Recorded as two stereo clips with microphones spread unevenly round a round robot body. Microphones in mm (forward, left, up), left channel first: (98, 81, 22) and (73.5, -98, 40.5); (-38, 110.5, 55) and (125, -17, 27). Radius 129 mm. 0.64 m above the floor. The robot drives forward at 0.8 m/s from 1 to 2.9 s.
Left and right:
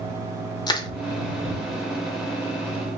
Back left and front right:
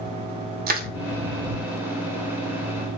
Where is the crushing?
10° left, 0.6 m.